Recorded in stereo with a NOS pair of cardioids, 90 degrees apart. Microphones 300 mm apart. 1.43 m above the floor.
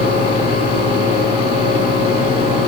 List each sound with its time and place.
0.0 s a fan: 70° left, 0.9 m